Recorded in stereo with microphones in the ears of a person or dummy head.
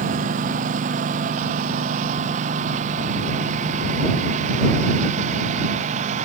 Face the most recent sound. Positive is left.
turn(degrees=-40)  # may be behind; listen again after turning